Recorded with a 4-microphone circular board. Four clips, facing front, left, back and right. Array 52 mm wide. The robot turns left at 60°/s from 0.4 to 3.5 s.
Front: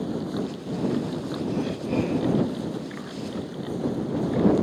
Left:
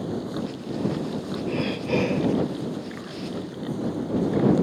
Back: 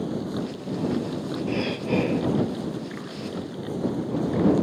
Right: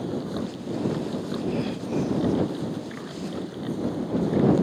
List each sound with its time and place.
1.5 s breathing: 155° left; by 2.4 s 100° left